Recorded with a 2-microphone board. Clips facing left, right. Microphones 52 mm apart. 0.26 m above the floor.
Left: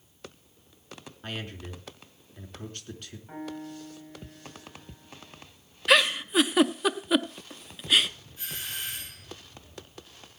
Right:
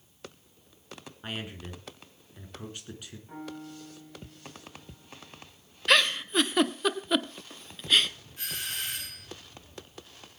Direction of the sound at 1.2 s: 10° right (ahead or behind).